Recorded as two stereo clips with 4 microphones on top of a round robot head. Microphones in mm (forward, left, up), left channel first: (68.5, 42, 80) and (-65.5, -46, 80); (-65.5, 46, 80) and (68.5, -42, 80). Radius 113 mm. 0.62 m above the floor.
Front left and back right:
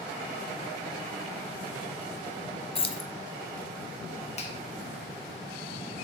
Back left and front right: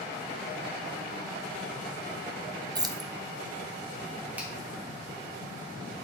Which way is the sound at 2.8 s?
15° left.